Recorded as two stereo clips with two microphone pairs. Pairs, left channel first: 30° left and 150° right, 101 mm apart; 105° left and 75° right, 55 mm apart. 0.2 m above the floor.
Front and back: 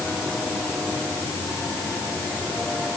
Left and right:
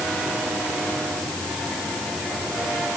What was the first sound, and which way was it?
Only background noise.